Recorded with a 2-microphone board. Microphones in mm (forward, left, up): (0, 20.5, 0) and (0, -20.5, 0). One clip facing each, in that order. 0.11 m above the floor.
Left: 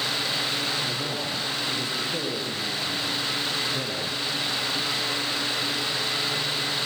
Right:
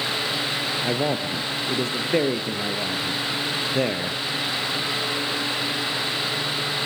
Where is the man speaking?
50° right (ahead or behind), 2.5 m.